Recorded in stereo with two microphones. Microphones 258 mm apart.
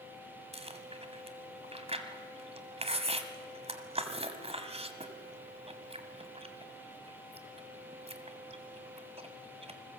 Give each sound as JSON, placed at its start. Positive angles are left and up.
{"t": 0.5, "sound": "chewing", "side_deg": -25, "distance_m": 1.7}